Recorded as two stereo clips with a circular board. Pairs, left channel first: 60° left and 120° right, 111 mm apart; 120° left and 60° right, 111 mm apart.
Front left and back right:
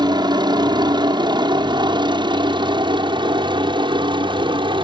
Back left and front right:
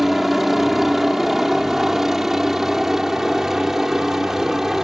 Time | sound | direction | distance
0.0 | a helicopter | 145° right | ?